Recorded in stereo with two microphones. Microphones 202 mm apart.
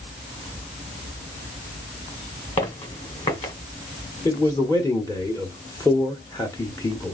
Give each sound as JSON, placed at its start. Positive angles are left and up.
{"t": 2.6, "sound": "footsteps", "side_deg": 35, "distance_m": 2.5}
{"t": 4.2, "sound": "a man speaking", "side_deg": 15, "distance_m": 1.0}